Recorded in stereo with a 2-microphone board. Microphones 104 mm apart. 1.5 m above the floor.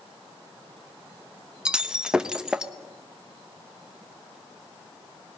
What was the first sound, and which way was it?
Breaking glass, 10° right (ahead or behind).